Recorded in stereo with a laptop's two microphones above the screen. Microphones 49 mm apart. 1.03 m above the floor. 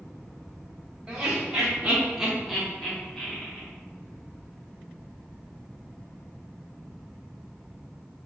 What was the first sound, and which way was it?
Laughter, 30° right (ahead or behind).